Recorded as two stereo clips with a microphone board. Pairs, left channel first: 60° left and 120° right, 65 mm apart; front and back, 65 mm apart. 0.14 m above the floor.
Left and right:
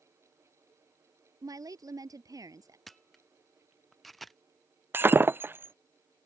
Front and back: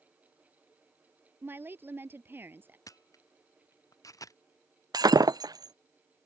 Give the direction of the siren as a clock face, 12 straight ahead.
No siren in this recording.